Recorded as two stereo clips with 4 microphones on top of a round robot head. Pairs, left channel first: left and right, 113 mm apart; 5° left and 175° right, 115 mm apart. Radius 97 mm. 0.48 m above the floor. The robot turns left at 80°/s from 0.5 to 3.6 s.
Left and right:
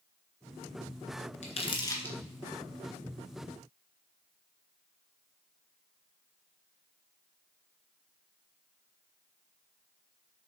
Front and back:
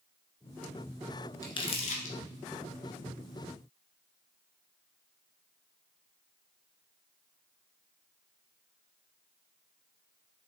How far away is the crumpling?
About 1.6 m.